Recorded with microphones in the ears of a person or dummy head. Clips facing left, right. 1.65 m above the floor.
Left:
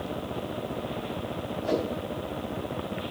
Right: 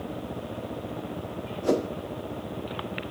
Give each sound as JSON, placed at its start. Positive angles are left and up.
{"t": 1.6, "sound": "a whoosh", "side_deg": -55, "distance_m": 0.6}